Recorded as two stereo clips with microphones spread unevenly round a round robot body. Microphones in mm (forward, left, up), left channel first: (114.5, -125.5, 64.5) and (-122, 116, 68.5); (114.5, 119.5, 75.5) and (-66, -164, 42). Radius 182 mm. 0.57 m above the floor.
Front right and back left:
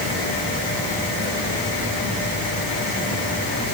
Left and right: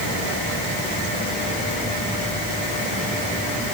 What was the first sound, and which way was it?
Only background noise.